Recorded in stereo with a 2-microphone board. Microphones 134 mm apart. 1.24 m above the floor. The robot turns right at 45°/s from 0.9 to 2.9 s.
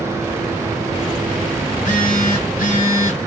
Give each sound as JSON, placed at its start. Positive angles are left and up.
{"t": 1.7, "sound": "a phone buzzing", "azimuth_deg": 65, "distance_m": 2.5}